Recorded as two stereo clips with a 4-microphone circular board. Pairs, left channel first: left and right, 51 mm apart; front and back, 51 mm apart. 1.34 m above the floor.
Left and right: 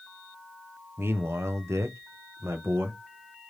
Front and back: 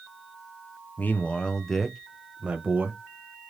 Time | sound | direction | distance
1.0 | a man speaking | 55° right | 0.7 m